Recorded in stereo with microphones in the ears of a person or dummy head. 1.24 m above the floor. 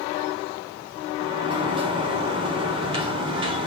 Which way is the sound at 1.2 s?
25° right (ahead or behind).